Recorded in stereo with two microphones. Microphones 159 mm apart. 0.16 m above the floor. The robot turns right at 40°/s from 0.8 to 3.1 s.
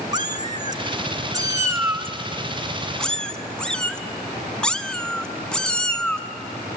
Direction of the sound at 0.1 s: 30° right (ahead or behind).